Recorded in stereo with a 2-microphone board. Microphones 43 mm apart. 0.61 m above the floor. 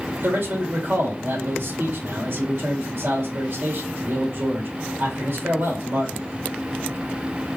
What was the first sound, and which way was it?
A man speaking, 65° right (ahead or behind).